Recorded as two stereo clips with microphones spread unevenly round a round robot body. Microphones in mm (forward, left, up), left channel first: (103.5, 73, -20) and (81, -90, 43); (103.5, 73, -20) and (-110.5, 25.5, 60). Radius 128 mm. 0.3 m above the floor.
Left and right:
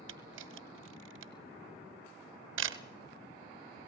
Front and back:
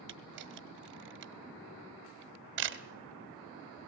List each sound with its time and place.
0.1 s a camera shutter: 115° right, 1.0 m